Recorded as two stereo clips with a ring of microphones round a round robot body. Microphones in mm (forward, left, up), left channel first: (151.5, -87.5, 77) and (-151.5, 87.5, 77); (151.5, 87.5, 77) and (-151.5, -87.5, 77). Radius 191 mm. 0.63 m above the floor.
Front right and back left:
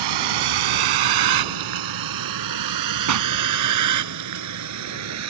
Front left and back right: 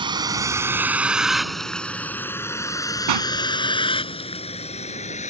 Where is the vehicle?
135° left; by 5.3 s 100° left.